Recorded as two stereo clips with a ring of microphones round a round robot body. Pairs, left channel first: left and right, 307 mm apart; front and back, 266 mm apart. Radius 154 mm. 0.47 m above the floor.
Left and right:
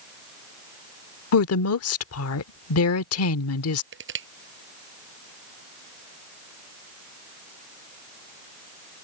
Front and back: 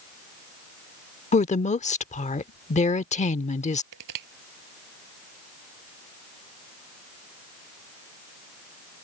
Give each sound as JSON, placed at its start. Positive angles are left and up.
{"t": 1.3, "sound": "a woman speaking", "azimuth_deg": 60}
{"t": 3.9, "sound": "crushing", "azimuth_deg": -145}